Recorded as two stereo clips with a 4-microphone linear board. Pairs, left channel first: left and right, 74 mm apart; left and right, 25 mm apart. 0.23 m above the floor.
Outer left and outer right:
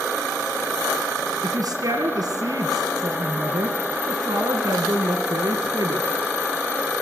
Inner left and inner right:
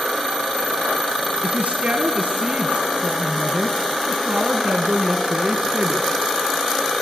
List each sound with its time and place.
1.4 s a woman speaking: 60° right (ahead or behind), 2.5 m